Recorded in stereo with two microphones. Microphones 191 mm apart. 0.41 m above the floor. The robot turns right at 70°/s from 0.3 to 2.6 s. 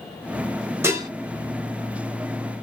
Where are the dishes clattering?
15° right (ahead or behind), 0.8 m; by 1.1 s 20° right (ahead or behind), 0.8 m.